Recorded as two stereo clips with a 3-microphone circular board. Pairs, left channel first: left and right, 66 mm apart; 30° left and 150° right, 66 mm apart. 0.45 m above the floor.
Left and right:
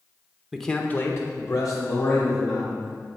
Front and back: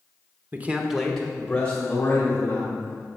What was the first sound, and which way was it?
A man speaking, 175° right.